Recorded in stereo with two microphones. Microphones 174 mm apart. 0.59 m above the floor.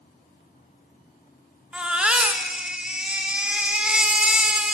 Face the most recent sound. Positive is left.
turn(degrees=-5)  # may be behind; listen again after turning